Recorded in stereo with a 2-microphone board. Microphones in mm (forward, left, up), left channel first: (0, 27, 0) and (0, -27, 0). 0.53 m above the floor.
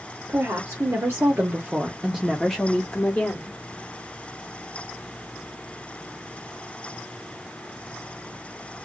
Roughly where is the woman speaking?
Right.